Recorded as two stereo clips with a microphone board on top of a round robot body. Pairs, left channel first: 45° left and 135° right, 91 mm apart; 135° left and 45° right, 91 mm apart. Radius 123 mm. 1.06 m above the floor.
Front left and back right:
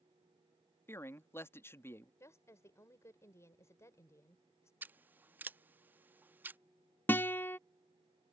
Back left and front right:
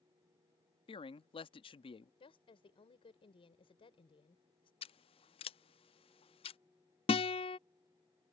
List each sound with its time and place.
0.9 s a man speaking: 110° left
2.2 s a woman speaking: 105° left
4.8 s scissors: 155° left
7.1 s a guitar: 115° left